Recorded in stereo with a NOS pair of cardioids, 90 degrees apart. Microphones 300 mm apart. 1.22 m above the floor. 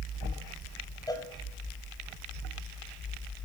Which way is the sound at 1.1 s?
10° left.